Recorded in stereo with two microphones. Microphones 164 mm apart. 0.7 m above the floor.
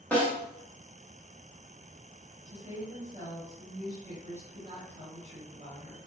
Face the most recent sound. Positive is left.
turn(degrees=-40)  # may be behind; listen again after turning